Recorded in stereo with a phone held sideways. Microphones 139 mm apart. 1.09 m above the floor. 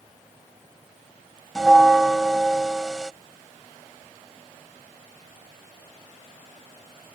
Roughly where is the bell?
Centre.